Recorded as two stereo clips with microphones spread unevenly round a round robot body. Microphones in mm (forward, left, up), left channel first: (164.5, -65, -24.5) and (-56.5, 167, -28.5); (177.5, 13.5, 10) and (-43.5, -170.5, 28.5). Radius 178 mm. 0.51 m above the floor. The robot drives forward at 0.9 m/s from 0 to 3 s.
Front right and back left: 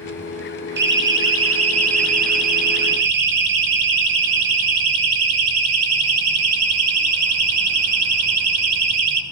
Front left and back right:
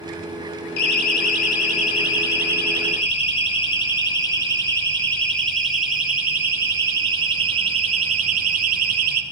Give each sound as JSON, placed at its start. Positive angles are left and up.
{"t": 0.8, "sound": "a siren", "azimuth_deg": 75, "distance_m": 5.0}